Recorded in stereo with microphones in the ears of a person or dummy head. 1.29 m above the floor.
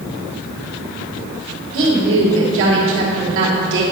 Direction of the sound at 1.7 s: 75° right (ahead or behind).